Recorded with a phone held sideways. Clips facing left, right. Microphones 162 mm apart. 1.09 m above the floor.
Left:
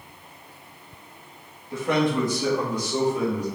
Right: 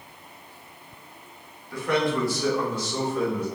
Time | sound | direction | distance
1.7 | a man speaking | 25° left (ahead or behind) | 1.4 m